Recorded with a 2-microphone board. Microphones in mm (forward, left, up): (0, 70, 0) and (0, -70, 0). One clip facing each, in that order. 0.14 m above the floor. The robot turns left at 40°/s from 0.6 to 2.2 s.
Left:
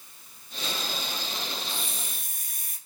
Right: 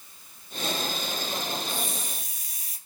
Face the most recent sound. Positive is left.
turn(degrees=50)  # may be behind; listen again after turning